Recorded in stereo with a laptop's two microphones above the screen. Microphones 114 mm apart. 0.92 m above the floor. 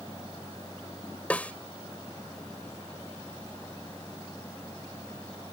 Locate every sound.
0.0 s a machine running: 25° left (ahead or behind)
1.3 s a snare drum: 10° left (ahead or behind)